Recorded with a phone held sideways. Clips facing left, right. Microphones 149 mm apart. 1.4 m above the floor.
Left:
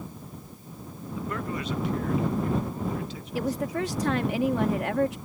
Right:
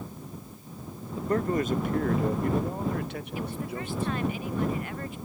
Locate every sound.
1.1 s a man speaking: 30° right (ahead or behind); by 4.3 s 65° right (ahead or behind)
3.4 s a woman speaking: 80° left